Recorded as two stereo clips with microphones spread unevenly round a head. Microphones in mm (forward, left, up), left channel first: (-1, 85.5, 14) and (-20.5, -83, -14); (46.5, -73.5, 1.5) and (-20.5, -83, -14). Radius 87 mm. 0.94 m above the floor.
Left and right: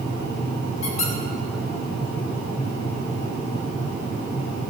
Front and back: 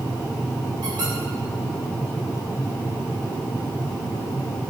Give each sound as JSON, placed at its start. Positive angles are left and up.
{"t": 0.8, "sound": "a squeak", "azimuth_deg": 140, "distance_m": 2.5}